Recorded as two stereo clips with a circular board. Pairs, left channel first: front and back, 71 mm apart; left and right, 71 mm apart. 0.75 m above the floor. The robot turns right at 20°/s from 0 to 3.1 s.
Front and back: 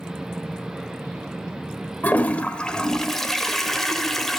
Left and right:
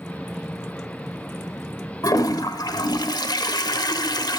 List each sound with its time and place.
2.0 s a toilet flushing: 65° left, 1.0 m; by 4.4 s 85° left, 1.0 m